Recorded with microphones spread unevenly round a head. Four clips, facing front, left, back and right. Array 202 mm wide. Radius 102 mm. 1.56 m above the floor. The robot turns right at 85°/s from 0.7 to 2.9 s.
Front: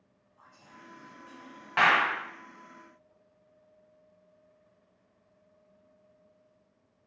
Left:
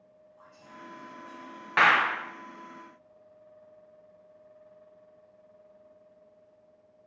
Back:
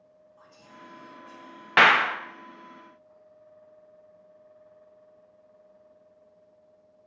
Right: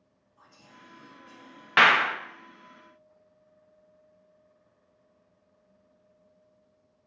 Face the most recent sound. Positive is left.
turn(degrees=-60)